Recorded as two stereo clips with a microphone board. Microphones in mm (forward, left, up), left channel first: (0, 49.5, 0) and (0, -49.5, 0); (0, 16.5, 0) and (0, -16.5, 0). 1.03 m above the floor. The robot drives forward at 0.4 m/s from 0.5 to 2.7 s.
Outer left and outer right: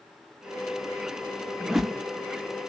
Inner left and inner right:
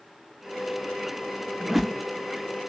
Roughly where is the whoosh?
Centre.